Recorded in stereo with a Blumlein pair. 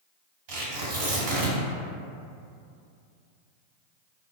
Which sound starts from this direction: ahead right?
Tearing paper, at 0.5 s.